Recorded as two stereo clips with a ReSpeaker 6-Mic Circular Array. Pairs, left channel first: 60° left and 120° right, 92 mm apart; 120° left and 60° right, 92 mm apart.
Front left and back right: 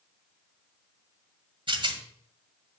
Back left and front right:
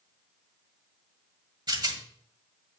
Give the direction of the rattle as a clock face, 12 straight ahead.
3 o'clock.